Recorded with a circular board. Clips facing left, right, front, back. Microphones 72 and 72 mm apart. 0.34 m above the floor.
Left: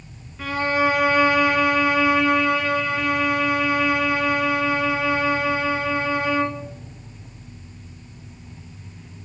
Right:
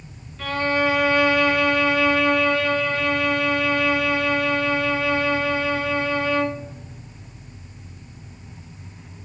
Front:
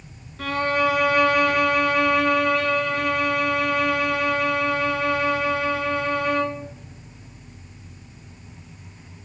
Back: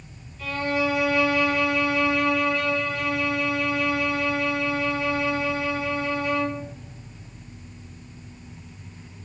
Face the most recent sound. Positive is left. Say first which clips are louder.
# left 1 dB, front 4 dB
turn(degrees=15)